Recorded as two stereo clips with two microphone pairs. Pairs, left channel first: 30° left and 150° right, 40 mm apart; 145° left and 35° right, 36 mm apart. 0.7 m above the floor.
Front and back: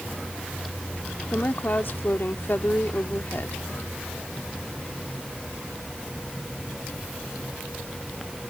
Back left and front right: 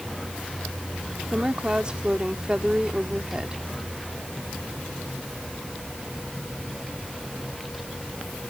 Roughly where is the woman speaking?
Ahead left.